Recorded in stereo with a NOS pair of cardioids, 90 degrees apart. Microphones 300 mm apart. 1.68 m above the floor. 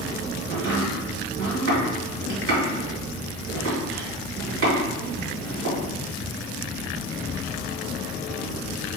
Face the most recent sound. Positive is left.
turn(degrees=-55)